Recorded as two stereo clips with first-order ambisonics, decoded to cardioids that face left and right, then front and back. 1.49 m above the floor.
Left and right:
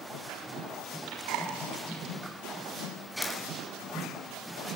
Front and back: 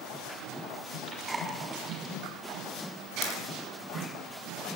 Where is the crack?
25° left, 5.5 m.